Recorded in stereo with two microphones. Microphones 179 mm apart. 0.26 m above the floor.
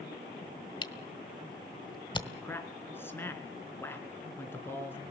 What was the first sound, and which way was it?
A camera shutter, 25° left (ahead or behind).